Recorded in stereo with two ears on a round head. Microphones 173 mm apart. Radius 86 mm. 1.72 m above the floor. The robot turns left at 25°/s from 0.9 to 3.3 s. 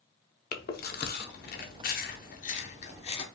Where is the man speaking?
No man speaking in this recording.